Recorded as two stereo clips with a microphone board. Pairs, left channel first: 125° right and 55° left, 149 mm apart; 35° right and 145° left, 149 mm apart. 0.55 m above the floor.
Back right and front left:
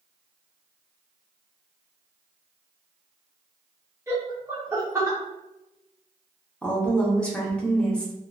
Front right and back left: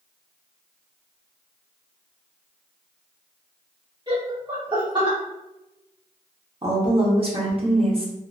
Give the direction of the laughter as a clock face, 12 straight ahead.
8 o'clock.